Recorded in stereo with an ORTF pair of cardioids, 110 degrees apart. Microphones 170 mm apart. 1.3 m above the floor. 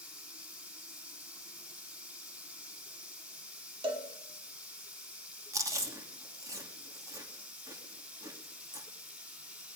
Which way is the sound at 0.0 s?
10° right.